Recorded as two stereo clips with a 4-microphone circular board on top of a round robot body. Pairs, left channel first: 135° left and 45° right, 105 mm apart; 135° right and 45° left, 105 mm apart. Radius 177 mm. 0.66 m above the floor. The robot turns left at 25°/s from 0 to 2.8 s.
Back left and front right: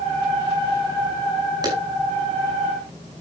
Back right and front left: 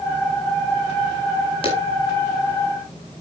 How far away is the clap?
About 5.5 m.